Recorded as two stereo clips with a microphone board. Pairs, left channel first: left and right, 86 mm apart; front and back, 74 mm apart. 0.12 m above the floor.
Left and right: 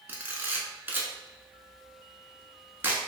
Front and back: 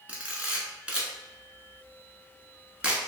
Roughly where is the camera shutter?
Behind right.